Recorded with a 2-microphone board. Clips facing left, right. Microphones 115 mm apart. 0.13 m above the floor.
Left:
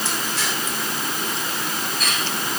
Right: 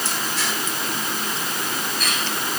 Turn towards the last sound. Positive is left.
No sound to turn to.